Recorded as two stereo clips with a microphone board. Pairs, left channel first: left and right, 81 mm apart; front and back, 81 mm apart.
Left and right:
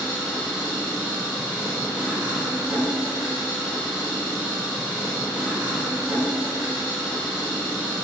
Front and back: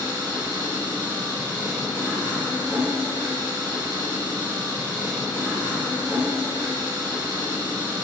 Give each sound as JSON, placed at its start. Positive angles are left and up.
{"t": 0.0, "sound": "an engine running", "azimuth_deg": -155, "distance_m": 1.3}